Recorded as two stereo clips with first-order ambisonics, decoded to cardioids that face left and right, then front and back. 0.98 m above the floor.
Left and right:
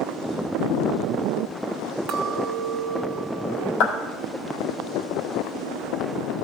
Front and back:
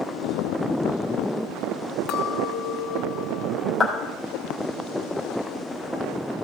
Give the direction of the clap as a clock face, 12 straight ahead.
9 o'clock.